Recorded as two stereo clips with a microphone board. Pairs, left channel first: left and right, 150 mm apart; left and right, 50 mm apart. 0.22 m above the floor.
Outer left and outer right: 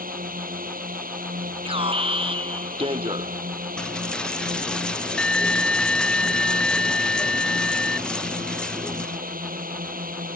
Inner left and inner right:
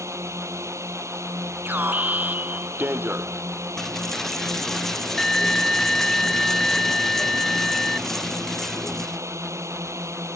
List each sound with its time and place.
0.0 s a drone: 80° right
1.6 s an alarm: 40° right (ahead or behind)
3.8 s a dropped coin: 5° left (ahead or behind)